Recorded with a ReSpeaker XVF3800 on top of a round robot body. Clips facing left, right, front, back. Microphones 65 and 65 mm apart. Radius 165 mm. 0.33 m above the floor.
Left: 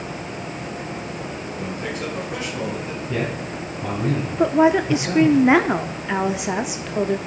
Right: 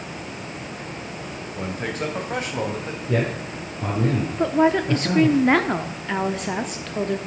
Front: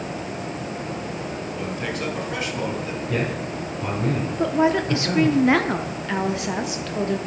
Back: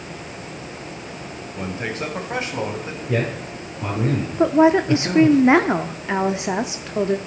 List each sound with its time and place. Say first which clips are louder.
1.6 s a man speaking: right 2 dB, back 3 dB; 125° right, 3.5 m
3.1 s a man speaking: right 3 dB, back 3 dB; 110° right, 9 m
4.4 s a woman speaking: left 3 dB, back 6 dB; 155° left, 1.0 m